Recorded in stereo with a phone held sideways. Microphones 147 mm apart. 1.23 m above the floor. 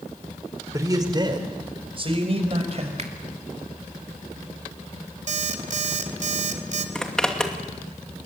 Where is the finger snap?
50° right (ahead or behind), 2 m.